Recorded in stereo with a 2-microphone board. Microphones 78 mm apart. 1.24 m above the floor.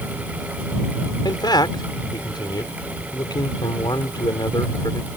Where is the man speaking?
65° left (ahead or behind).